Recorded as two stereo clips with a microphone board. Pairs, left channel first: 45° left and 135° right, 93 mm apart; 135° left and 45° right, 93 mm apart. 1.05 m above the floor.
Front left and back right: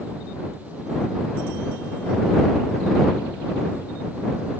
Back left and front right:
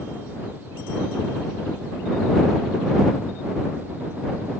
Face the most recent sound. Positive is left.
No sound to turn to.